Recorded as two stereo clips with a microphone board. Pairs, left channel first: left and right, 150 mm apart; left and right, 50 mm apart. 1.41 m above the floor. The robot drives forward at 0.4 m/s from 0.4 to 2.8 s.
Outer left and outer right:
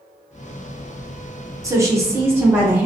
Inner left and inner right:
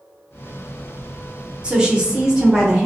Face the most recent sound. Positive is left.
turn(degrees=-15)  # may be behind; listen again after turning